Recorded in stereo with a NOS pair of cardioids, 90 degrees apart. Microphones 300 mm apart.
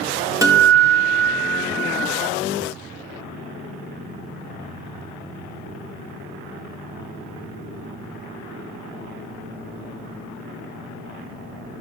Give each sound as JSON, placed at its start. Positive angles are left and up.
{"t": 0.4, "sound": "a guitar", "azimuth_deg": -10, "distance_m": 1.4}